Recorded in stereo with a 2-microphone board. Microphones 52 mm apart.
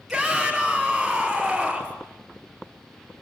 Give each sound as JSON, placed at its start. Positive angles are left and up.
{"t": 0.1, "sound": "a shout", "side_deg": 0, "distance_m": 2.5}